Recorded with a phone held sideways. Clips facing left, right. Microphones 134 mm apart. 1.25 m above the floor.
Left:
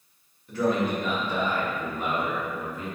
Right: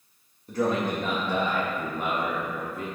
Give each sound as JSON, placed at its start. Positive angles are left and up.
{"t": 0.5, "sound": "a man speaking", "side_deg": -35, "distance_m": 1.8}